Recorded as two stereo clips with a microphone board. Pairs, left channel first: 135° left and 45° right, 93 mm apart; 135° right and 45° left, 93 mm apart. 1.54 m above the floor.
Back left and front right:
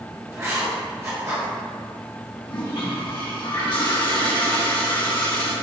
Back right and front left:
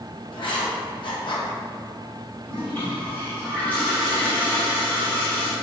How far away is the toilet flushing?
About 1.2 m.